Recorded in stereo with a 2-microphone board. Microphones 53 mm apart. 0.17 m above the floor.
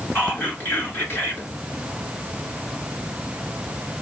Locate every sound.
0.1 s whispering: 50° left (ahead or behind), 1.8 m